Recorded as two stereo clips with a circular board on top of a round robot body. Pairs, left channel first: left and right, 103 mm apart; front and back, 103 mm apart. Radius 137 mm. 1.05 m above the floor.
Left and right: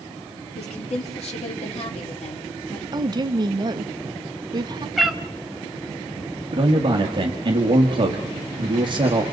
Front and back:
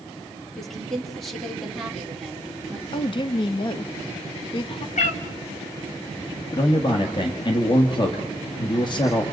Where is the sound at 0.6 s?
90° left, 4 m.